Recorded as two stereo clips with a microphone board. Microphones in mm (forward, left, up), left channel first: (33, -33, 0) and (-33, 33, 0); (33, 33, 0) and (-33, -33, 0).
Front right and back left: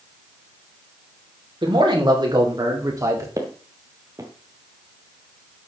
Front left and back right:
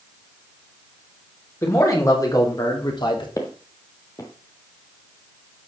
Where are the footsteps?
90° left, 1.9 m.